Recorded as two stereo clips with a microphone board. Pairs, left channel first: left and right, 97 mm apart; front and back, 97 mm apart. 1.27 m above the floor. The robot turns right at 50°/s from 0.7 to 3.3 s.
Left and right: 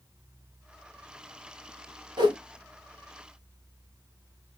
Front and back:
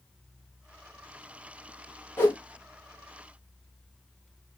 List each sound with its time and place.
2.2 s a whoosh: 65° right, 0.9 m; by 2.4 s 55° right, 0.9 m